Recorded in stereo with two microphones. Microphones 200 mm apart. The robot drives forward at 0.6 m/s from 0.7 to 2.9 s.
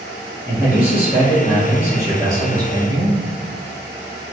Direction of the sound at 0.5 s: 10° right (ahead or behind).